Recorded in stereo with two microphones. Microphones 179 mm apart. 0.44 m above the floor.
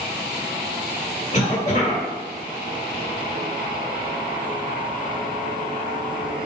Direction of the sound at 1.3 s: 40° left (ahead or behind).